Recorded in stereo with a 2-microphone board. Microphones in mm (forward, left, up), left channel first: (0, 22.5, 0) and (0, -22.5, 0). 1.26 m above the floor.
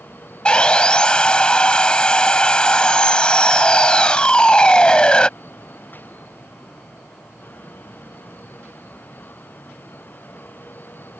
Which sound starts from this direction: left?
Sawing, at 0.5 s.